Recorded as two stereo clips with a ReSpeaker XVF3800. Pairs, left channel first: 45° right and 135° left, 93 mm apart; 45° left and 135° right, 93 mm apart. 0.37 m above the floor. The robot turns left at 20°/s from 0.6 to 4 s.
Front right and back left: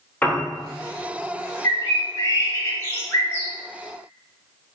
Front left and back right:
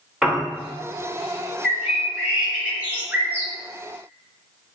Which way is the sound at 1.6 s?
50° right.